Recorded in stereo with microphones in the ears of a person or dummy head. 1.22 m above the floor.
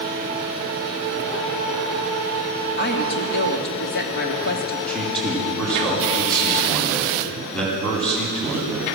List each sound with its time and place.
2.8 s a woman speaking: 55° left (ahead or behind), 3 m
4.9 s a man speaking: 5° left (ahead or behind), 9.5 m